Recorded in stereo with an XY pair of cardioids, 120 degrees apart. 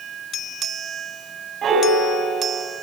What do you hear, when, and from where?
1.6 s a piano: 55° right, 5.5 m